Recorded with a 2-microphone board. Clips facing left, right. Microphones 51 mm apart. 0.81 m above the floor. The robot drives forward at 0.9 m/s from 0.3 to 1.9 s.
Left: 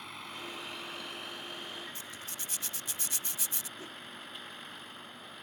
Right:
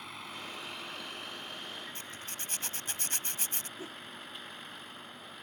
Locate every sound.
0.0 s a vehicle: 5° right (ahead or behind); by 5.4 s centre (ahead or behind)
1.9 s a zipper: 45° right (ahead or behind)
3.8 s a whoosh: 25° right (ahead or behind)